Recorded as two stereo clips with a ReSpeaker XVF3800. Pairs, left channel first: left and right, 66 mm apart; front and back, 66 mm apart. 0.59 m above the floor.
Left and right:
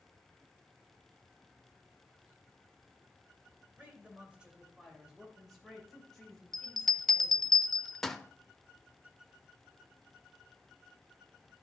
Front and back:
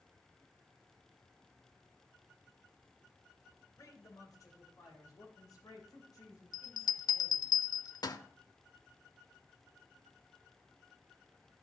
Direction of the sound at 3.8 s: 25° right.